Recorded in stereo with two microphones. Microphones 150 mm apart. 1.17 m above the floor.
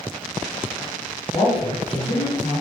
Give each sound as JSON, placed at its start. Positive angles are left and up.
{"t": 1.3, "sound": "a man speaking", "side_deg": 40, "distance_m": 1.6}